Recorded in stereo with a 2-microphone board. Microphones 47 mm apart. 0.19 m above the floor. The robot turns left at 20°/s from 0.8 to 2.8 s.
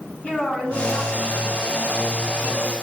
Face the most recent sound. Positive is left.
turn(degrees=110)